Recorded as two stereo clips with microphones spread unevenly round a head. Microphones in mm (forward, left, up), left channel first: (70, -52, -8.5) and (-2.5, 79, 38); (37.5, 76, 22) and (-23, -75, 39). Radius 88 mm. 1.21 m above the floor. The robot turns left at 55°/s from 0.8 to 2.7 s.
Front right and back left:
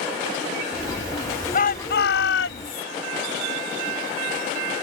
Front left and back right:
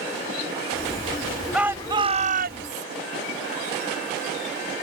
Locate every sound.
1.5 s a shout: 25° right; by 2.9 s 90° right